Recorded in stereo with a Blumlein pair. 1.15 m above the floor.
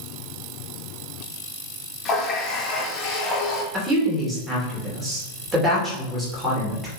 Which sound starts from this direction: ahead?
A woman speaking, at 3.7 s.